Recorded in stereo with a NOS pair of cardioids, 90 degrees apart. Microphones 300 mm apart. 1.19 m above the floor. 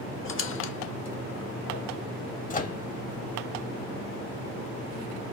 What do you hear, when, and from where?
0.2 s a squeak: 45° left, 0.6 m
2.5 s a microwave: 25° left, 0.6 m